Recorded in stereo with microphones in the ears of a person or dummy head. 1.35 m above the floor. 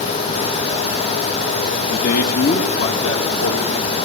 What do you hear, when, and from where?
1.9 s a man speaking: 35° left (ahead or behind), 0.9 m; by 4.0 s 80° left, 2.5 m